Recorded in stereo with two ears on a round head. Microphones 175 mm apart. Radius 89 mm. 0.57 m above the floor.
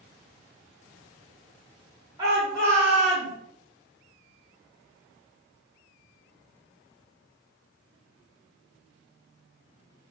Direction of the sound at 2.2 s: 20° right (ahead or behind).